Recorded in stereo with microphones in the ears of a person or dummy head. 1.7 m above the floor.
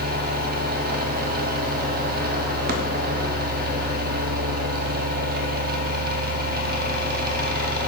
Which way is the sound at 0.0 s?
55° right (ahead or behind).